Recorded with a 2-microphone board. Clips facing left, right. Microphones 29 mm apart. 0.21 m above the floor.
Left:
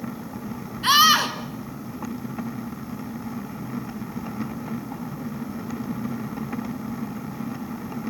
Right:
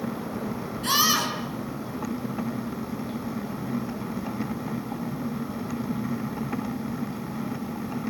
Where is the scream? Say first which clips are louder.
Left 7 dB; 40° left (ahead or behind), 3 m.